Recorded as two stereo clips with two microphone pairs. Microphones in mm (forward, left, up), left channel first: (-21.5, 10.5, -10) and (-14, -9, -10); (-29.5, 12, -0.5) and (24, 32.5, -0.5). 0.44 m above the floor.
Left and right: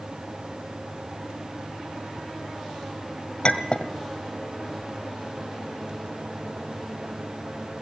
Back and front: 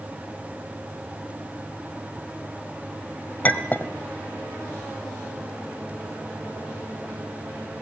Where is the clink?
145° left, 1.7 m.